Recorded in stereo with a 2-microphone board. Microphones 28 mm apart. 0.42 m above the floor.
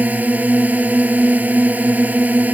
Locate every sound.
0.0 s a drone: 80° right